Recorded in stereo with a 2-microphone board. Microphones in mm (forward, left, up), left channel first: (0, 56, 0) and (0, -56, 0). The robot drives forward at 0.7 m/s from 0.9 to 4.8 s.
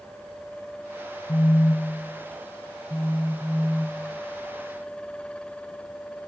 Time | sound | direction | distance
1.3 | a phone buzzing | 50° left (ahead or behind) | 0.7 m